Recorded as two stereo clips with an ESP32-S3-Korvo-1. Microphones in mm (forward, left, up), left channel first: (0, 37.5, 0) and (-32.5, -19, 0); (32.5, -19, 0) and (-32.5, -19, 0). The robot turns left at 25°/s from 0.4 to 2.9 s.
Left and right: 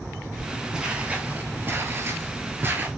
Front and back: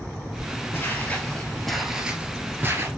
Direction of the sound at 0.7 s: 40° right.